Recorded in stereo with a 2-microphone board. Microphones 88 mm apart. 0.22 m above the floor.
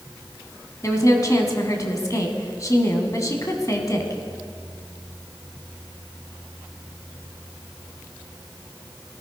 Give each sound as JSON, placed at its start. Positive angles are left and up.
{"t": 0.8, "sound": "a woman speaking", "side_deg": 40, "distance_m": 1.7}